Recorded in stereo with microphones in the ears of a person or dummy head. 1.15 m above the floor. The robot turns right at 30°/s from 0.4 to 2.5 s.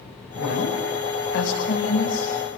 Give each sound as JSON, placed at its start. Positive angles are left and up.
{"t": 0.3, "sound": "a woman speaking", "azimuth_deg": 75, "distance_m": 5.0}